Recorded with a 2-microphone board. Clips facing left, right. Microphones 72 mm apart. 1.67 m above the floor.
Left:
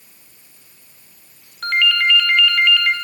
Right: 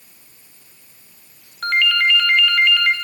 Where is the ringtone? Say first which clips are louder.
Even; 10° right (ahead or behind), 3 m.